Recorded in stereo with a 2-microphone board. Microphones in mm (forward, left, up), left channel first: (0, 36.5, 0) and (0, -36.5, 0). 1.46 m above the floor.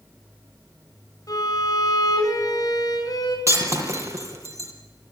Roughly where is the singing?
No singing in this recording.